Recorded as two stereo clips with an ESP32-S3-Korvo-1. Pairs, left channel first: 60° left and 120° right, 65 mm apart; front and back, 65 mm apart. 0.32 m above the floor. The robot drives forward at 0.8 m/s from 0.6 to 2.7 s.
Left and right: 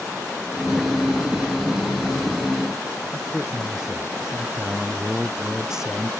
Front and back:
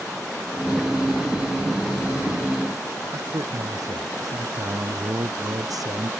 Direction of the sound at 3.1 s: 160° left.